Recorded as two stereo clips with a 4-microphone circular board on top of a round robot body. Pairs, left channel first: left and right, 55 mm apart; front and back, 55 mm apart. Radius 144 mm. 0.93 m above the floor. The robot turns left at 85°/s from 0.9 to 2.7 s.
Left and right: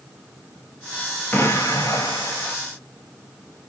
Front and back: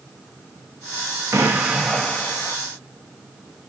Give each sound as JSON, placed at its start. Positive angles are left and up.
{"t": 1.3, "sound": "an explosion", "azimuth_deg": 145, "distance_m": 1.0}